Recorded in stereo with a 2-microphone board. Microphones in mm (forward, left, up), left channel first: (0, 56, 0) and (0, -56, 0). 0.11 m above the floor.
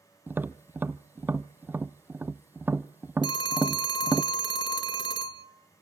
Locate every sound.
0.3 s tapping: 20° right (ahead or behind), 0.6 m
3.2 s a phone ringing: 45° left (ahead or behind), 0.9 m